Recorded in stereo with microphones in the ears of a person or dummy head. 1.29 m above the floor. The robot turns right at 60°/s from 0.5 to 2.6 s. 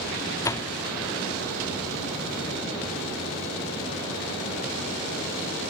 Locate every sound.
0.4 s a door slam: 20° left (ahead or behind), 0.8 m; by 0.7 s 5° left (ahead or behind), 0.8 m